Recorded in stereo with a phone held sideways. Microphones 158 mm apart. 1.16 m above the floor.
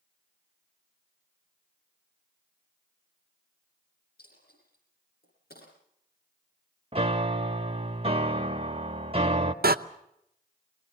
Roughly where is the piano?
Right.